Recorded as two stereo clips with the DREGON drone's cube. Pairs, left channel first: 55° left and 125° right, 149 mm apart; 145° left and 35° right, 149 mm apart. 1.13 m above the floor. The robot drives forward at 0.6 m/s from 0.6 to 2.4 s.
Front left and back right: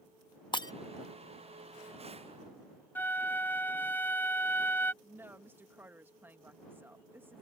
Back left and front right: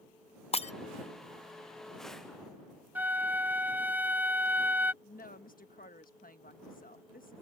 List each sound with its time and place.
0.5 s breaking glass: 110° left; by 0.7 s 115° left
3.0 s a flute: 10° left
5.0 s a woman speaking: 160° left